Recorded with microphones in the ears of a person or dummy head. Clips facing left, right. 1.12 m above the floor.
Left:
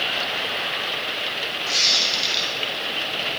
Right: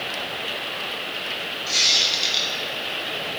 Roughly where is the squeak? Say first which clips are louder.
Left 1 dB; centre.